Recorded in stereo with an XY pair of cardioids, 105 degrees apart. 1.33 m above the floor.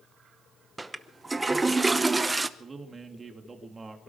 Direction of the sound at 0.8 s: 15° right.